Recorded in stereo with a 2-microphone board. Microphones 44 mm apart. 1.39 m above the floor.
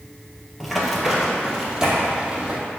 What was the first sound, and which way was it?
Running footsteps, centre (ahead or behind).